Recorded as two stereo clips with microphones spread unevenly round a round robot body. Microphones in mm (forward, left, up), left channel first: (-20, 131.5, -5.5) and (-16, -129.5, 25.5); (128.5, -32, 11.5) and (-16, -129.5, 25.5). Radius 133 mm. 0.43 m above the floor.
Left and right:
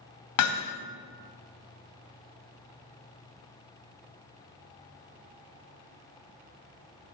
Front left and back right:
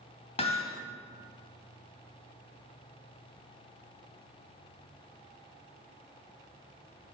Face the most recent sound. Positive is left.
turn(degrees=100)